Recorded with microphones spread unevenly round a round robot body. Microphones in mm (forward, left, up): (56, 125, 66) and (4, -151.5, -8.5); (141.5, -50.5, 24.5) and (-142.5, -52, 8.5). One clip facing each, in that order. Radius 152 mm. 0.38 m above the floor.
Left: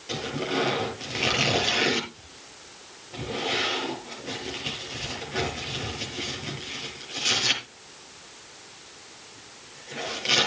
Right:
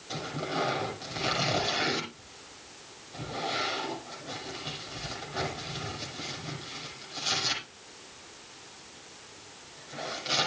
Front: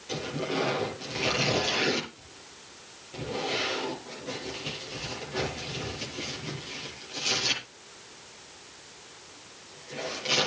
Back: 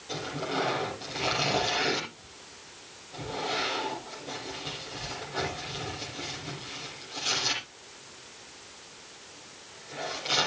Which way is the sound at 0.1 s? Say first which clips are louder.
Left 6 dB, front 3 dB; 75° left.